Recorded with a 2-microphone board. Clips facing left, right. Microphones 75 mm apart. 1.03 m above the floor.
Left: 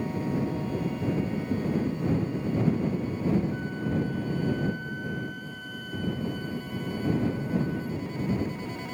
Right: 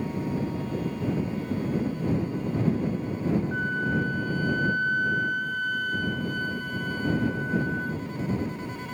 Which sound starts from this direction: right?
A flute, at 3.5 s.